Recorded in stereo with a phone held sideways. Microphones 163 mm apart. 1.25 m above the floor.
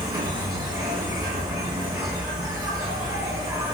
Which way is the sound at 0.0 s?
30° right (ahead or behind).